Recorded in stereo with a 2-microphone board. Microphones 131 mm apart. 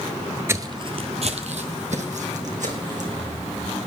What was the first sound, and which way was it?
Footsteps, 20° right (ahead or behind).